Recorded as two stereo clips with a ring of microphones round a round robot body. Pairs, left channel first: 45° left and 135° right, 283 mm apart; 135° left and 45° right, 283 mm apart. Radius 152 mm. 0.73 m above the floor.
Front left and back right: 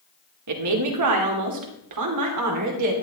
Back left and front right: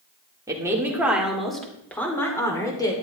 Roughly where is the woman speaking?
Behind right.